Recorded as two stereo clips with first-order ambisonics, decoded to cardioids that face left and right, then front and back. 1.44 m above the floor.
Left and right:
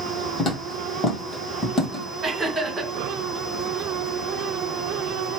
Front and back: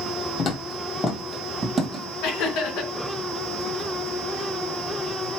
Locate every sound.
0.4 s footsteps: 30° left, 1.8 m; by 2.1 s 140° left, 1.6 m
2.2 s laughter: 20° right, 2.5 m